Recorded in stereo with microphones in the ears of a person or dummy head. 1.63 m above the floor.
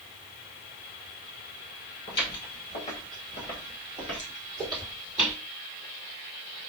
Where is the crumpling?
I don't hear crumpling.